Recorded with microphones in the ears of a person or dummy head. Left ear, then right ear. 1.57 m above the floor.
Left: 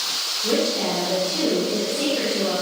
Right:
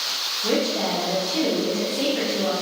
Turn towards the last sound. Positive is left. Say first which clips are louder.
# left 1 dB
turn(degrees=-25)  # may be behind; listen again after turning